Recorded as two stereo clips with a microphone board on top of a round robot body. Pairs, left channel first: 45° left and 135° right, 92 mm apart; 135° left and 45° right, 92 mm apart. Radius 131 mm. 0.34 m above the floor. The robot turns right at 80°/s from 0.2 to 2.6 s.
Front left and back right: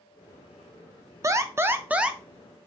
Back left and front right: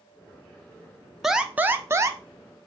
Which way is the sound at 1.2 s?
130° right.